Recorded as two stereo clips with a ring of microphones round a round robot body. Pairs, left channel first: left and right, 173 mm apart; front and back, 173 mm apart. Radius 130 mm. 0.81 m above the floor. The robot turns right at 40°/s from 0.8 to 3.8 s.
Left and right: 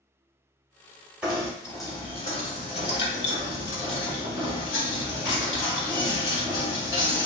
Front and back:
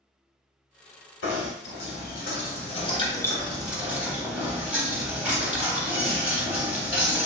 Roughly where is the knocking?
Ahead.